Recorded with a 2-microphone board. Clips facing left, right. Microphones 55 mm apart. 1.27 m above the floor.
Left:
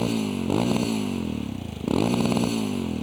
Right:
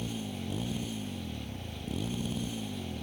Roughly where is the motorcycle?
Left.